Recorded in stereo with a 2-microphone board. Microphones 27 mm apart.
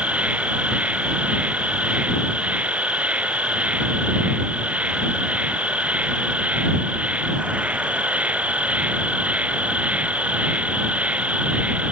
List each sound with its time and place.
0.0 s an insect: 70° right (ahead or behind)